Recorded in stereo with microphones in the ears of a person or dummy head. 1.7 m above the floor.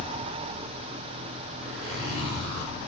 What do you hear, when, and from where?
1.6 s a zipper: 70° right (ahead or behind), 5.5 m